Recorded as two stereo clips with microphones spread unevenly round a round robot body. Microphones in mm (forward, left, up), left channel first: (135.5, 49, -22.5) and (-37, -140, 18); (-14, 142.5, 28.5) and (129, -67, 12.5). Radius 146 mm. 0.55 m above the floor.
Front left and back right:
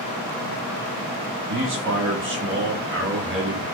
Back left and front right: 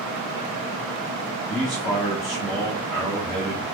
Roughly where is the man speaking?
Behind right.